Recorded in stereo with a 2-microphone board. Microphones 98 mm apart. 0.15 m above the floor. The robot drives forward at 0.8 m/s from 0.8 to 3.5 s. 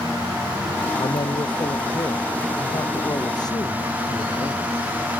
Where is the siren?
No siren in this recording.